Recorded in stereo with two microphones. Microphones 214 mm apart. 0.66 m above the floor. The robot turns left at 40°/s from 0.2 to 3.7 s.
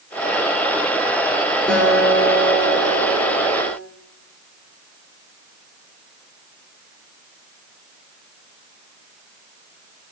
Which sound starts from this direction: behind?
A guitar, at 1.7 s.